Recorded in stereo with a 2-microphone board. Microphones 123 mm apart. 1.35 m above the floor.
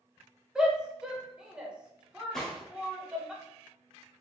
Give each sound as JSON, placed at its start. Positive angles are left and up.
{"t": 0.6, "sound": "a shout", "side_deg": -5, "distance_m": 0.8}
{"t": 2.3, "sound": "a gunshot", "side_deg": 5, "distance_m": 1.0}